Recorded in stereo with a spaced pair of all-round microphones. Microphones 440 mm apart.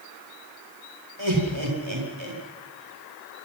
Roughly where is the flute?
I don't hear a flute.